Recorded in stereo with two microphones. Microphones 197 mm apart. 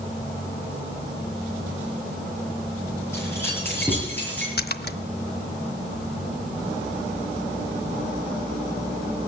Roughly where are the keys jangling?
Centre.